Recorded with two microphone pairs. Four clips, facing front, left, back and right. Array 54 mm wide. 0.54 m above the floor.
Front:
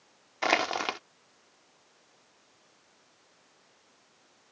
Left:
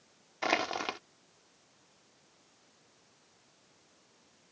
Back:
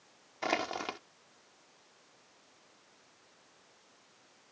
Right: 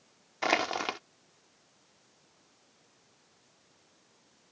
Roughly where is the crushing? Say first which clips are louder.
Right 2 dB, front 7 dB; ahead.